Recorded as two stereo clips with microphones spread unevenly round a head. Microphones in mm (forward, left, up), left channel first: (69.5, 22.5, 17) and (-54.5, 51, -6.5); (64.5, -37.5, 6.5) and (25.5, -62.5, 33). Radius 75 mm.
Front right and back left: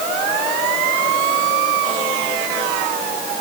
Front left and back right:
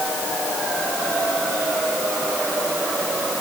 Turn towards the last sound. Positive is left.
No sound to turn to.